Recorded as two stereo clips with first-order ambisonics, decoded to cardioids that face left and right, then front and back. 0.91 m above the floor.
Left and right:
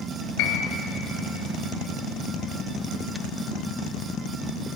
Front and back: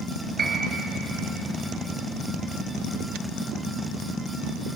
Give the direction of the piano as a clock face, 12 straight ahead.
8 o'clock.